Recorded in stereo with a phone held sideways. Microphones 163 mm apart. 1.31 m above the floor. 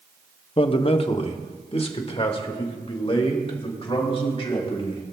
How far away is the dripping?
No dripping in this recording.